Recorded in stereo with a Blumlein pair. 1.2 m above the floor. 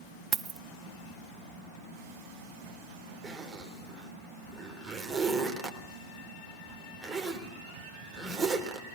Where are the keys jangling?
20° right, 0.5 m.